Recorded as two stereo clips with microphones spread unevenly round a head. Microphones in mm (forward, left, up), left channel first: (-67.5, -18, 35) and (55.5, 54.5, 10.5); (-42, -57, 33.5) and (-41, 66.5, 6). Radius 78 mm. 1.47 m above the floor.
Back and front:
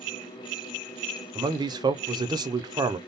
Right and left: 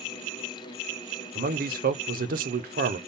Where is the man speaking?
95° left, 0.6 m.